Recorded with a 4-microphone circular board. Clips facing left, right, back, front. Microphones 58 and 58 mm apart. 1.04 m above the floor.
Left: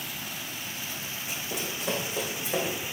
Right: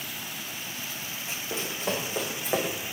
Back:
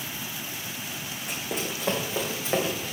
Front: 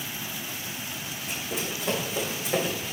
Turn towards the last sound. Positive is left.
turn(degrees=-115)